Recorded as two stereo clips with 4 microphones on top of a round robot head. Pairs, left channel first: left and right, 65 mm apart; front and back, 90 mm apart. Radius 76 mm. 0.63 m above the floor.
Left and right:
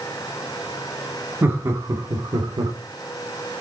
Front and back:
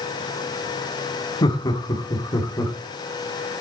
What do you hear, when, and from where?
1.4 s laughter: 35° right, 2 m; by 2.7 s 60° right, 2.5 m